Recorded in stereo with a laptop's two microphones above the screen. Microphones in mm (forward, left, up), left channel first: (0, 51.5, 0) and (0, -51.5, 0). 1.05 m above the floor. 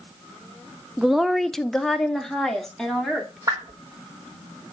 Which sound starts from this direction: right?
A whoosh, at 3.5 s.